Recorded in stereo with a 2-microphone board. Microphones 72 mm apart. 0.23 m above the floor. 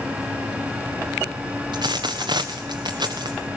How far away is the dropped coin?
About 1.4 m.